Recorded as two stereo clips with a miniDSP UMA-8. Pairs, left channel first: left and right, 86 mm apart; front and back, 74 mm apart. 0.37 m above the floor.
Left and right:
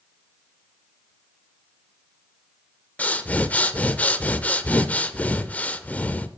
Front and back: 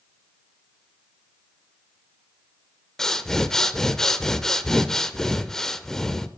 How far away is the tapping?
I don't hear tapping.